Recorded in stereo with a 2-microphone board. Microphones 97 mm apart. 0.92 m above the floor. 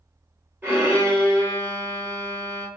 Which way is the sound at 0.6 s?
20° right (ahead or behind).